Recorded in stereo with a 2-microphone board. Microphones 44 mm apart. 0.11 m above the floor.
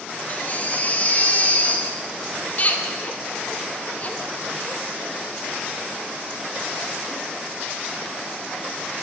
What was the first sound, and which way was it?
A baby crying, 40° left (ahead or behind).